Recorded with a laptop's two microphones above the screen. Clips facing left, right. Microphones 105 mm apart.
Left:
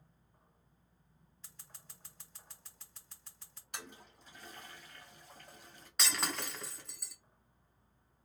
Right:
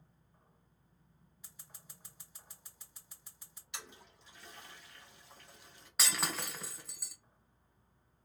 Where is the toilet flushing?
45° left (ahead or behind), 1.2 m.